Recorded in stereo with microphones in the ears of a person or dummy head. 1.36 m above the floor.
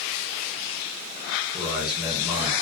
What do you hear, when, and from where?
1.5 s a man speaking: 15° right (ahead or behind), 0.9 m